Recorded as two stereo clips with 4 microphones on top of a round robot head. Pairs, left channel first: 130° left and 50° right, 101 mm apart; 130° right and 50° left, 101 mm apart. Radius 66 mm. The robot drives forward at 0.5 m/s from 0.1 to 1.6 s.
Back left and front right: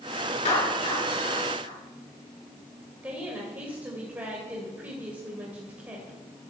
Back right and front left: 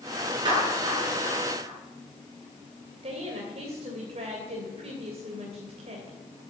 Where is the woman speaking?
25° left, 2.5 m.